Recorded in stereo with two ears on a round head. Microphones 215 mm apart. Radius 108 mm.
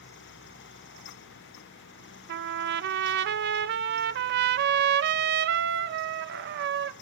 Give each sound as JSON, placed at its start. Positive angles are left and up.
{"t": 2.3, "sound": "a trumpet", "side_deg": -50, "distance_m": 0.5}